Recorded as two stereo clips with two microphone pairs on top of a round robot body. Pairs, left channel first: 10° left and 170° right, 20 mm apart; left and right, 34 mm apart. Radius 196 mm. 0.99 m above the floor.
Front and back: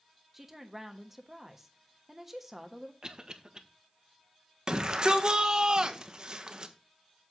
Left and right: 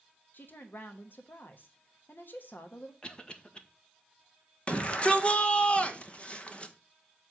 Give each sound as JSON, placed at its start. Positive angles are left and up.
{"t": 0.3, "sound": "a woman speaking", "azimuth_deg": 120, "distance_m": 1.3}
{"t": 3.0, "sound": "a cough", "azimuth_deg": 150, "distance_m": 1.5}
{"t": 4.7, "sound": "a shout", "azimuth_deg": 145, "distance_m": 1.2}